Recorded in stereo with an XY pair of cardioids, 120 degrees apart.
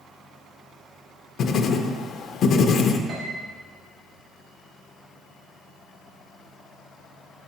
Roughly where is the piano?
Ahead right.